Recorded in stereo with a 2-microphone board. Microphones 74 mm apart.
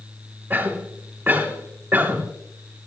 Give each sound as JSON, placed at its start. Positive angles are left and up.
{"t": 0.5, "sound": "a cough", "side_deg": -30, "distance_m": 2.5}